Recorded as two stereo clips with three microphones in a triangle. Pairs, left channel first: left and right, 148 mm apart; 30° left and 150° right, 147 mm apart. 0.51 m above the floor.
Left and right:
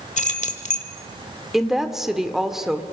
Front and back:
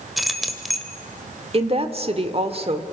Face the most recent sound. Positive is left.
turn(degrees=-175)